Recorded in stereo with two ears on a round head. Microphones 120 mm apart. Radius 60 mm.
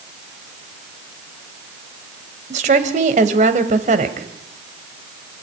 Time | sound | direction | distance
2.5 | a woman speaking | 55° right (ahead or behind) | 2.5 m